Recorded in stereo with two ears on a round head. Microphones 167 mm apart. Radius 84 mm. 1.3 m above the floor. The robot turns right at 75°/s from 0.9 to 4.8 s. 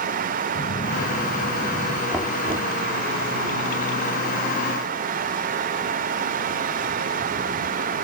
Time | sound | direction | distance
0.6 | a phone buzzing | 130° left | ?
2.1 | knocking | straight behind | ?